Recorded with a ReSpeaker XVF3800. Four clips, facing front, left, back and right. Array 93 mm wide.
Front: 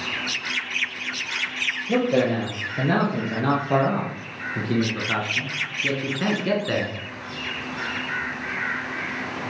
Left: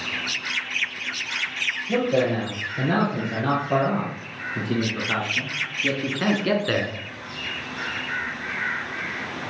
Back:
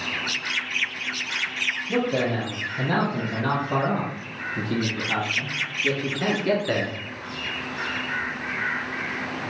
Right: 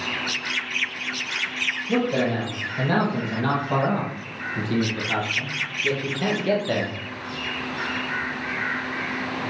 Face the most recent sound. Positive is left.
turn(degrees=95)